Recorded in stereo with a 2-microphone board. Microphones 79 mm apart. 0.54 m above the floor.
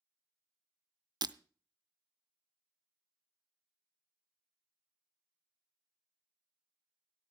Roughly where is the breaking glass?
Right.